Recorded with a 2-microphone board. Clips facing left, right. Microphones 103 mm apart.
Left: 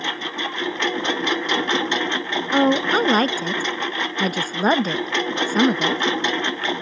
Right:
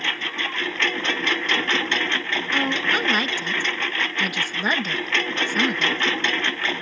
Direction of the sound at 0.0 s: 20° left (ahead or behind).